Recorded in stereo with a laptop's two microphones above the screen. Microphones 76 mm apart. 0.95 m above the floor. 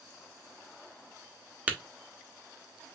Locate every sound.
1.7 s tapping: 20° right (ahead or behind), 1.0 m